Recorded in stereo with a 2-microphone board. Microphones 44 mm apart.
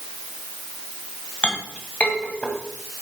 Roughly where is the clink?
Left.